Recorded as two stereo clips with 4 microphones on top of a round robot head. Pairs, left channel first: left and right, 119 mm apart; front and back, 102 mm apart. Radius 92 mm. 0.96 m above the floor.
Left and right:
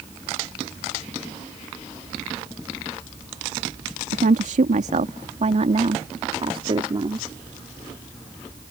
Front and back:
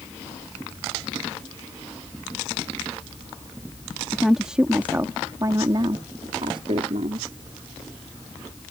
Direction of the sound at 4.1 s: 90° right.